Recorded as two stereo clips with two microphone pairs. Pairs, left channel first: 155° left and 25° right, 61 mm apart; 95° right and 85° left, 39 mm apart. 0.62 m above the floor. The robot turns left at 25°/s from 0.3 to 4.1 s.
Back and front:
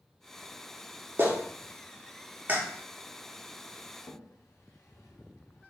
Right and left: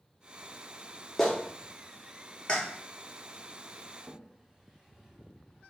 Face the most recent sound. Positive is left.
turn(degrees=160)